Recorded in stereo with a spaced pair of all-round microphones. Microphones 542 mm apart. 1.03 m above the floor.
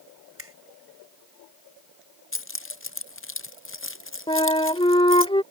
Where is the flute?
10° left (ahead or behind).